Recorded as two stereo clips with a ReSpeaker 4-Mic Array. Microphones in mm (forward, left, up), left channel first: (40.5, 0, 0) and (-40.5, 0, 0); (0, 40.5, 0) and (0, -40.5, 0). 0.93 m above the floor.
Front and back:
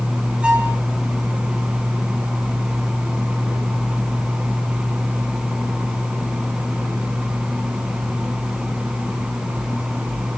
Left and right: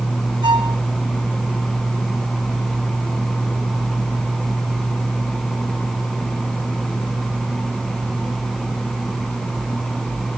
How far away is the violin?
About 3.5 m.